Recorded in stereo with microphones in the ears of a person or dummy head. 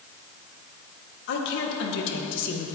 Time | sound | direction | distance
1.3 | a woman speaking | 70° left (ahead or behind) | 2 m